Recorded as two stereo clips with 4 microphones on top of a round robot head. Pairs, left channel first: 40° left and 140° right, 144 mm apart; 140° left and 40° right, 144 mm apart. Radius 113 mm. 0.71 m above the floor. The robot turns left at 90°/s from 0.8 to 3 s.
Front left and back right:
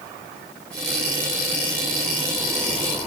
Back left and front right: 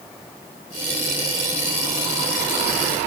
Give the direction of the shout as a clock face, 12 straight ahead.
No shout in this recording.